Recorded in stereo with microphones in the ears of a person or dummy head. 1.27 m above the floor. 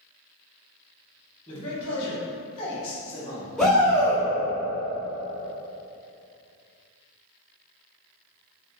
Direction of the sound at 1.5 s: 30° left (ahead or behind).